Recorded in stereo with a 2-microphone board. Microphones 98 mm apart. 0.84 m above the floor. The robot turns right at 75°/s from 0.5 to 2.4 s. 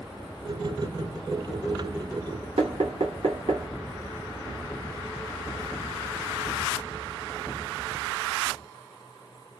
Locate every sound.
2.6 s knocking: 85° right, 1.0 m